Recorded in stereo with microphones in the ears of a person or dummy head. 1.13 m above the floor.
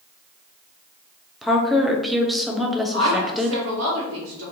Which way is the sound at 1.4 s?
5° right (ahead or behind).